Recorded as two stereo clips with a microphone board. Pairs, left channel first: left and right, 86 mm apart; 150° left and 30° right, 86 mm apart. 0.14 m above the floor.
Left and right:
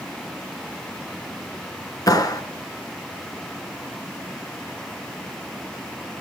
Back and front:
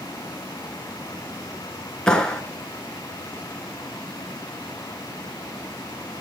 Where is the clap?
70° left, 1.5 m.